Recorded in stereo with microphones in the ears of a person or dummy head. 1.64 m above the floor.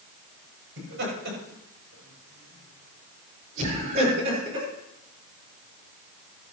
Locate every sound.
0.8 s laughter: 65° right (ahead or behind), 7.5 m; by 4.7 s 30° right (ahead or behind), 4.5 m